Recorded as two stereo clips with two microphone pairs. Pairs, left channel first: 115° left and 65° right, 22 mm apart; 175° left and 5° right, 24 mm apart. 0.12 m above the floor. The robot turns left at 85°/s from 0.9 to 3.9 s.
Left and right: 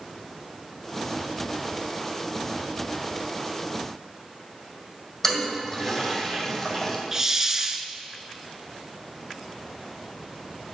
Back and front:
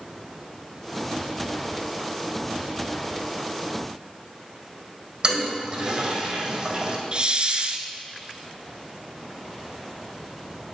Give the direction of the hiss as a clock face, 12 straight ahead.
12 o'clock.